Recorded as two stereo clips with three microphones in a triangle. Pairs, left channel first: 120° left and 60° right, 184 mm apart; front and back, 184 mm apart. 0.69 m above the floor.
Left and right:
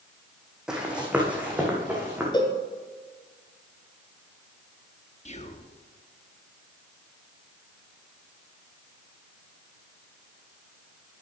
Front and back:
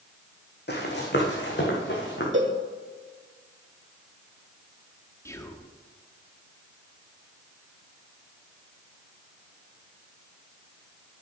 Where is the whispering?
70° left, 1.1 m.